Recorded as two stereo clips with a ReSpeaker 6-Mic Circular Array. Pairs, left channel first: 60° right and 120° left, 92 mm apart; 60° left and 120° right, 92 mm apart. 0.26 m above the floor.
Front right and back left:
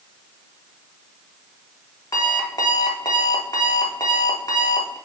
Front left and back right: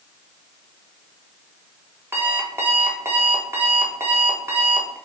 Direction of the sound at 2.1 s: 70° right.